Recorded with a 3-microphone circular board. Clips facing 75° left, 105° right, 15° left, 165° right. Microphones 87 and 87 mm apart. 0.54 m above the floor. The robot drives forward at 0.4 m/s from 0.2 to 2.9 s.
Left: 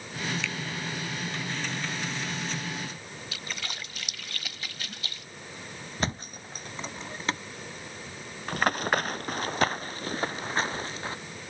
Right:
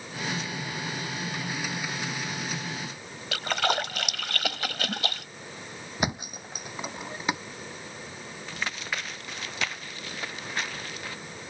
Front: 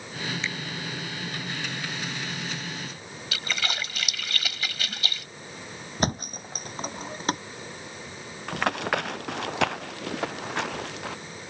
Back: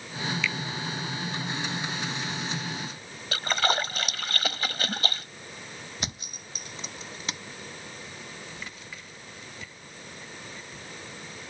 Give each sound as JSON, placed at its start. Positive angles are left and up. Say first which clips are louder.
{"t": 0.4, "sound": "a finger snap", "louder": "left 1 dB, back 3 dB", "azimuth_deg": 75}
{"t": 3.3, "sound": "a splash", "louder": "right 15 dB, back 6 dB", "azimuth_deg": -115}
{"t": 6.0, "sound": "a thud", "louder": "right 2 dB, front 16 dB", "azimuth_deg": -25}
{"t": 8.5, "sound": "running footsteps", "louder": "left 9 dB, front 16 dB", "azimuth_deg": 35}